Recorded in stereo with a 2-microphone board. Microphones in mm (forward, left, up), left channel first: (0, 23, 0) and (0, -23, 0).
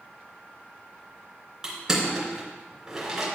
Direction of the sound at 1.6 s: 15° right (ahead or behind).